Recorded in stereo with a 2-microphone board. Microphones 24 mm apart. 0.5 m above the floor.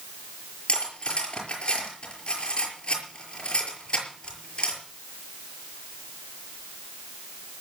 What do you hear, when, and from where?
0.7 s cutlery clinking: 45° left (ahead or behind), 5.5 m